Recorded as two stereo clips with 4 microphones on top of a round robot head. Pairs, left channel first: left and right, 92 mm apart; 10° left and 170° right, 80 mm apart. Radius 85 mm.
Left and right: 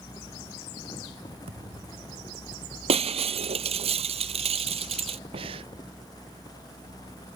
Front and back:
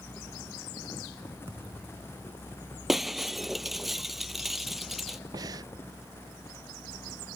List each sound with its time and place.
1.5 s a thud: 110° right
2.9 s breaking glass: 85° right
5.3 s breathing: 120° right